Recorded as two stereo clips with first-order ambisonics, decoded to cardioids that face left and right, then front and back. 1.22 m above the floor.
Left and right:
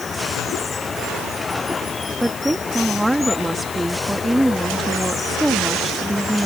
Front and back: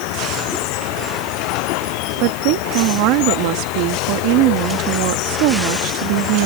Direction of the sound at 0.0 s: 15° left.